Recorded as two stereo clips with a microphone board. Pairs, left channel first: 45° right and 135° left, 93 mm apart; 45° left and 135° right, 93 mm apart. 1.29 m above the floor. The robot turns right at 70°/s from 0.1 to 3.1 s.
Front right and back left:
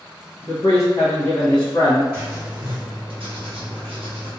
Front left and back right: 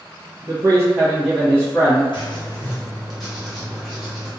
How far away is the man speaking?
About 1.3 m.